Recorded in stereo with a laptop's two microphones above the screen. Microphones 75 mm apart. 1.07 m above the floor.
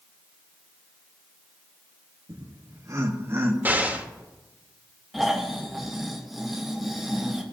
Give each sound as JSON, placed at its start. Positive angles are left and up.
{"t": 2.3, "sound": "laughter", "side_deg": -60, "distance_m": 1.3}
{"t": 3.6, "sound": "an explosion", "side_deg": -25, "distance_m": 1.6}
{"t": 5.1, "sound": "snoring", "side_deg": 0, "distance_m": 1.1}